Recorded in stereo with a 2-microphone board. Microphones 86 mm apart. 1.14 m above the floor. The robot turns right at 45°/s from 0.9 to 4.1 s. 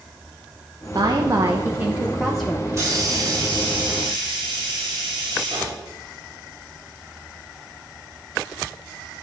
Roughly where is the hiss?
Behind right.